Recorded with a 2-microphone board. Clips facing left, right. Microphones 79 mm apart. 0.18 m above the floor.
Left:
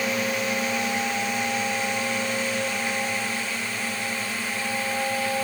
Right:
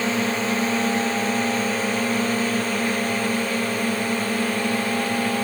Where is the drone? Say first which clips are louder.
Right 3 dB; 30° right (ahead or behind); by 5.4 s 50° right (ahead or behind).